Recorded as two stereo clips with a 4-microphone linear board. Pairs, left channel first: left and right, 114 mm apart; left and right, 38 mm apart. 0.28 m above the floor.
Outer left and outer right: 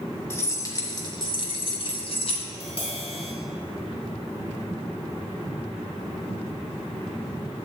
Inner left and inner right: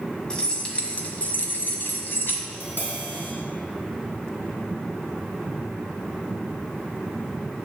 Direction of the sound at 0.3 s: 20° left (ahead or behind).